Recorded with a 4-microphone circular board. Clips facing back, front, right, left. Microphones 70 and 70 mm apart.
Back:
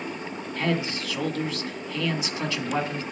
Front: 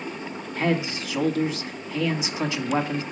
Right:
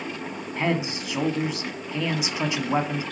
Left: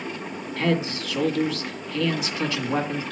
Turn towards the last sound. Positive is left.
turn(degrees=-40)